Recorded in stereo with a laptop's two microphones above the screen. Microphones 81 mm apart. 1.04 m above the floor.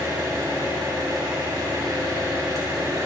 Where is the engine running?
50° right (ahead or behind), 3.5 m.